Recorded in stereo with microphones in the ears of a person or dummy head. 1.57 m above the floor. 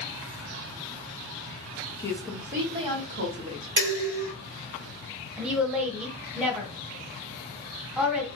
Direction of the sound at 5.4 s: 5° right (ahead or behind).